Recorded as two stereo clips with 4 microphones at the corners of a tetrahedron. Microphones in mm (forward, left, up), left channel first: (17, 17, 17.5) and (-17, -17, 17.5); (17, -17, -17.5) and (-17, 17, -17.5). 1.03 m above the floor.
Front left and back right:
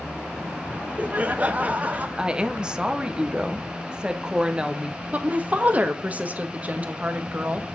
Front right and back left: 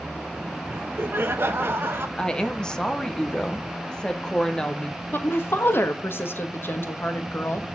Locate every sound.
0.7 s laughter: 170° left, 0.9 m
2.2 s a woman speaking: 90° right, 0.7 m
5.1 s a woman speaking: 80° right, 1.0 m